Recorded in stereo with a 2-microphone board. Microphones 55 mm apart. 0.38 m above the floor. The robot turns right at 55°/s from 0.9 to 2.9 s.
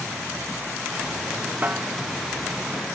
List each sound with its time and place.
1.6 s a snare drum: 35° right (ahead or behind); by 1.9 s 20° right (ahead or behind)